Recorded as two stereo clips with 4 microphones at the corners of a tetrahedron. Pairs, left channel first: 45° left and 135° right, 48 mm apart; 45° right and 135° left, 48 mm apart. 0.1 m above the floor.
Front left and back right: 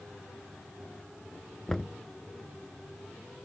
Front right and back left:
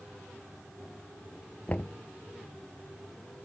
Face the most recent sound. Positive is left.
turn(degrees=-30)